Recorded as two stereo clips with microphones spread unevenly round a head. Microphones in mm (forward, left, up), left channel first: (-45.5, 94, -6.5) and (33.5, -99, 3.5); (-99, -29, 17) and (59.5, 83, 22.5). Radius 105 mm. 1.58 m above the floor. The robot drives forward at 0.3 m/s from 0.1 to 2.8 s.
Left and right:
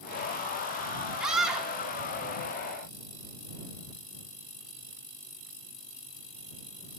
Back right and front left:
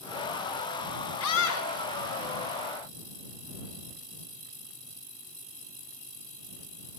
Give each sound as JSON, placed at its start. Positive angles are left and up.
{"t": 1.2, "sound": "a scream", "azimuth_deg": -155, "distance_m": 4.5}